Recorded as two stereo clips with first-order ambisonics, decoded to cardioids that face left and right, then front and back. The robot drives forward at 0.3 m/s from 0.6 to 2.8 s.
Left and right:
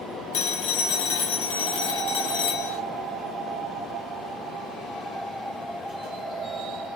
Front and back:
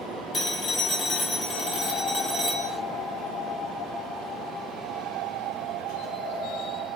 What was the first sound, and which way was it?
A phone ringing, 70° left.